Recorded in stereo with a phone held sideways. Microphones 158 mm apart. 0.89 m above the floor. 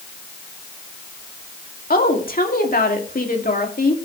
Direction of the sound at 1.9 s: 65° left (ahead or behind).